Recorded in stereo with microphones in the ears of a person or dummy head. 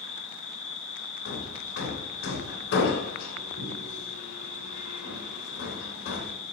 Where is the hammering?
65° left (ahead or behind), 3.5 m.